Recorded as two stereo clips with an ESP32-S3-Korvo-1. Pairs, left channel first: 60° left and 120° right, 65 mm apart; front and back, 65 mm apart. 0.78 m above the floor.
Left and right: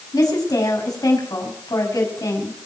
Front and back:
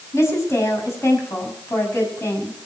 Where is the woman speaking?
45° left, 6 m.